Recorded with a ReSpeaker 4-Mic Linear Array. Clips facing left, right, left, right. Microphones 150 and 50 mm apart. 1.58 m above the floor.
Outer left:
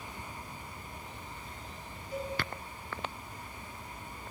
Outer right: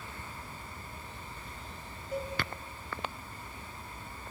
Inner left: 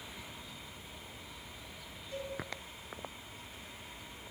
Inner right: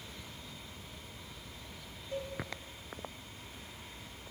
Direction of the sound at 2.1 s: 45° right (ahead or behind).